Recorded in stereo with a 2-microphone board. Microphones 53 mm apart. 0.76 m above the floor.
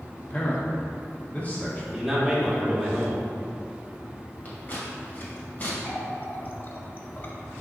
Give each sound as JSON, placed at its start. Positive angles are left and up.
{"t": 0.2, "sound": "a man speaking", "side_deg": 30, "distance_m": 1.7}
{"t": 1.9, "sound": "a man speaking", "side_deg": -5, "distance_m": 1.7}
{"t": 4.5, "sound": "scissors", "side_deg": 35, "distance_m": 2.0}
{"t": 5.8, "sound": "a running tap", "side_deg": 40, "distance_m": 0.7}